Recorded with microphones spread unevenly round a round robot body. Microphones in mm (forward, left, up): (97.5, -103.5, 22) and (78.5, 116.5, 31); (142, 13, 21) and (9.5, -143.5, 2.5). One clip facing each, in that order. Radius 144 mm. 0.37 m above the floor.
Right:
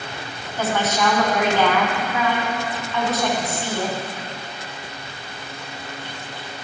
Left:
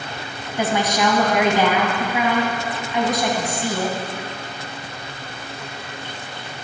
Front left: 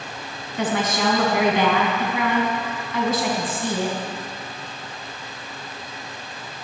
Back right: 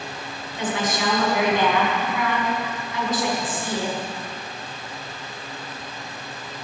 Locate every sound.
0.6 s a woman speaking: 20° left, 3 m